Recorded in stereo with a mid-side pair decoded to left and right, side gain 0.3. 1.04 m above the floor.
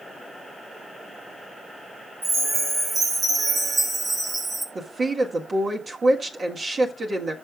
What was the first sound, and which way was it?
A chime, 70° right.